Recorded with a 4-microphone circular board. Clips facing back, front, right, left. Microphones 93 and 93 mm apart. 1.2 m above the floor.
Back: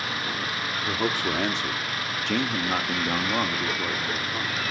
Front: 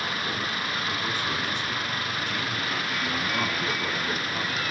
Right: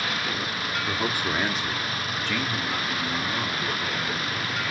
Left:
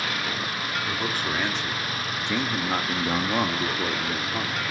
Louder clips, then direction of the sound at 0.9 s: Back 3 dB, right 3 dB; 165° right.